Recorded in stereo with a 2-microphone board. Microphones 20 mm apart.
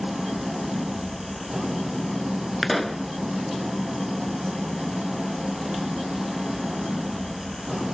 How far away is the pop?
About 0.7 m.